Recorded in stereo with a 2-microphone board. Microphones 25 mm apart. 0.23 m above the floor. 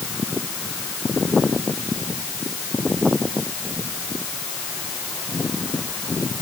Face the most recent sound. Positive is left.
No sound to turn to.